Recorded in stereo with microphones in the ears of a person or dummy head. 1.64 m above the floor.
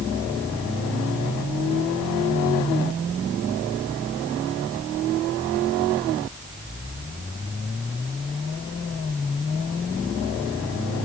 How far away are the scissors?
No scissors in this recording.